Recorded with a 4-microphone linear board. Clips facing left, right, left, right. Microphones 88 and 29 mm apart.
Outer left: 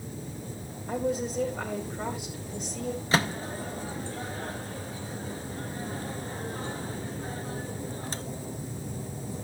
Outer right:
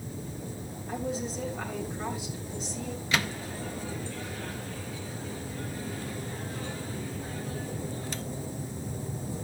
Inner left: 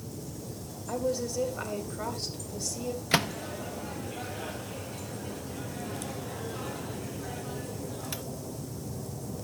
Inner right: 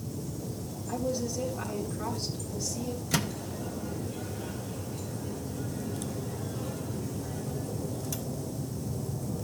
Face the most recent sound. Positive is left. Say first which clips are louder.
# outer left 4 dB, inner left 5 dB
turn(degrees=35)  # may be behind; listen again after turning